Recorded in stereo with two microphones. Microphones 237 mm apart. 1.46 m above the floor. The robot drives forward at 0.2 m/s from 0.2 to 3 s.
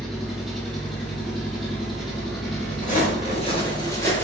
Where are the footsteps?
35° left (ahead or behind), 1.7 m; by 4.2 s 10° left (ahead or behind), 2.0 m.